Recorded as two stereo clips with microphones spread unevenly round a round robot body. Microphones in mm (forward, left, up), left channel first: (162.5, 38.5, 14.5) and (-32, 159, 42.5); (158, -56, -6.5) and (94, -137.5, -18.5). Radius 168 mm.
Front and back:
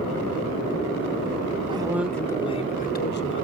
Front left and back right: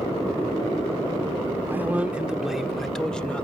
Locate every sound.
1.7 s a man speaking: 155° right, 0.8 m; by 3.4 s 30° right, 1.2 m